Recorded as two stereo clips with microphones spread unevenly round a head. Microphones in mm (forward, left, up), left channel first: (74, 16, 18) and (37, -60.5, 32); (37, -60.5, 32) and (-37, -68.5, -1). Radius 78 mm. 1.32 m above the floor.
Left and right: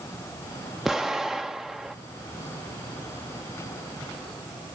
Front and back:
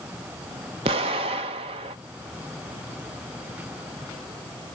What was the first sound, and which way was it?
An explosion, 165° left.